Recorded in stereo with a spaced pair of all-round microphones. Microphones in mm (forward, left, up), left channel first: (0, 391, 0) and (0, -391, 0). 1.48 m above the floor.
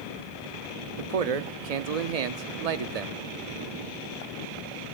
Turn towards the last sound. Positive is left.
turn(degrees=-55)  # may be behind; listen again after turning